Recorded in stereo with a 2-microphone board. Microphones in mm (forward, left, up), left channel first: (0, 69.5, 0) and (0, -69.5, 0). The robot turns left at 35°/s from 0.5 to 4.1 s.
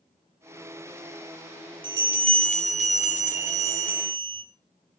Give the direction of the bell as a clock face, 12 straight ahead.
2 o'clock.